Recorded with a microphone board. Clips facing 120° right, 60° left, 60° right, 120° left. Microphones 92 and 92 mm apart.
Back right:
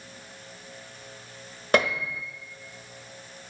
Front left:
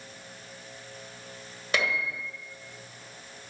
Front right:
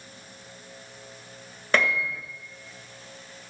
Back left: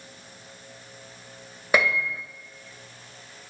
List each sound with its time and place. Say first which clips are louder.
1.7 s a piano: back right 6 dB, back left 1 dB; 160° right, 1.4 m